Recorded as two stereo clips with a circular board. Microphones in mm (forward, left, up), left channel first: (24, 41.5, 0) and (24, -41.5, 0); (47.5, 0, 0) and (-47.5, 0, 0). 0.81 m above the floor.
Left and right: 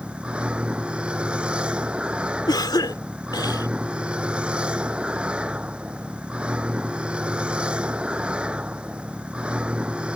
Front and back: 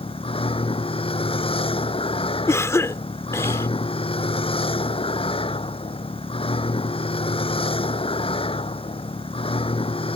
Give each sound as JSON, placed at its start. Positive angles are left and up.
{"t": 0.0, "sound": "a vehicle", "azimuth_deg": -15}
{"t": 2.5, "sound": "a cough", "azimuth_deg": 60}